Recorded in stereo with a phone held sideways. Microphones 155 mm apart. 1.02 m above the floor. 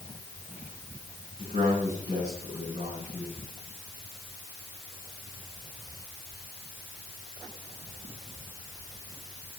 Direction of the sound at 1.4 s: 45° right (ahead or behind).